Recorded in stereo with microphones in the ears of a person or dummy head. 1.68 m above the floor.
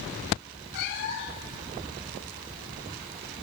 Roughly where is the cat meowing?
Left.